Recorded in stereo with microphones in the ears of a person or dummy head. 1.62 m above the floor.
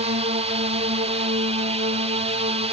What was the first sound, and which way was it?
A drone, 30° right (ahead or behind).